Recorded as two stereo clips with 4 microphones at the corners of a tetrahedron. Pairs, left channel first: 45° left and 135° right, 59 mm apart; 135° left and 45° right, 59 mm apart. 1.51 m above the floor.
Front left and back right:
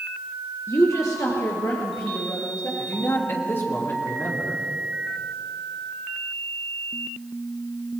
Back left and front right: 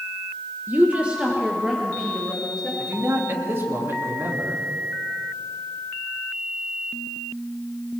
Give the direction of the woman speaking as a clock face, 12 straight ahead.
12 o'clock.